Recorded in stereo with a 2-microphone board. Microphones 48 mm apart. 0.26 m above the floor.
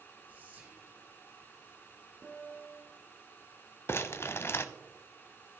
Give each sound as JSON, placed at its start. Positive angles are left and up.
{"t": 0.3, "sound": "whispering", "side_deg": -40, "distance_m": 3.5}
{"t": 2.2, "sound": "a piano", "side_deg": 0, "distance_m": 0.9}
{"t": 3.9, "sound": "crumpling", "side_deg": 55, "distance_m": 0.5}